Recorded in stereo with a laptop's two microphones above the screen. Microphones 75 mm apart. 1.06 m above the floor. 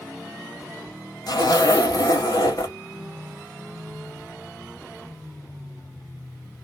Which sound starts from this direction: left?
A zipper, at 1.3 s.